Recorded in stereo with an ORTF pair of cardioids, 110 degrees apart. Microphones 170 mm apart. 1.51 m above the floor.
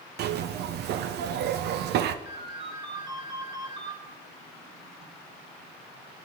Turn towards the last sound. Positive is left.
turn(degrees=-30)